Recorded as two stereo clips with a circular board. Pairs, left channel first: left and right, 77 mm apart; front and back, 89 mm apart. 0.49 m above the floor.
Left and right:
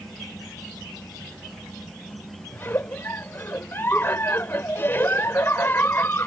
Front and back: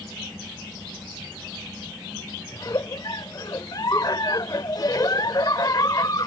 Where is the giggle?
35° left.